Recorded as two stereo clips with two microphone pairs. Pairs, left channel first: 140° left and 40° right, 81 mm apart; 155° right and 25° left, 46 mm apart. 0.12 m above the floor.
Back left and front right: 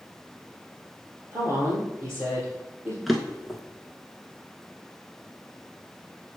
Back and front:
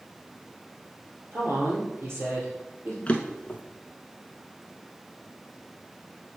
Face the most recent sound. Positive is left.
turn(degrees=-135)